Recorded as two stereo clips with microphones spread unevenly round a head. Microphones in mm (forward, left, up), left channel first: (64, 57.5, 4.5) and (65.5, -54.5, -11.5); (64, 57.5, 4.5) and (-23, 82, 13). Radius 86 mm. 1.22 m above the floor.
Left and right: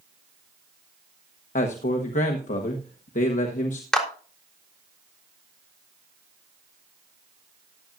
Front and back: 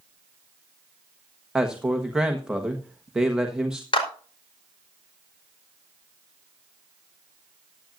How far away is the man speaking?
About 1.3 m.